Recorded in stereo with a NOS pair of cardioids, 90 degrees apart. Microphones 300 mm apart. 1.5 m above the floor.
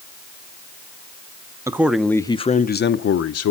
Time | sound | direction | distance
1.7 | a man speaking | 10° right | 1.0 m